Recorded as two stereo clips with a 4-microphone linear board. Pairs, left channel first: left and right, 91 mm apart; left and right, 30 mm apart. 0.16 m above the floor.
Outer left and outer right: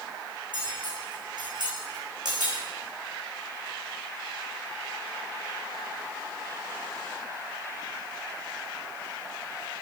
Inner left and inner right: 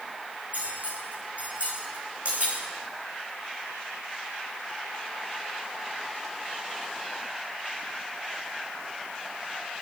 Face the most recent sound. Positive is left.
turn(degrees=-50)  # may be behind; listen again after turning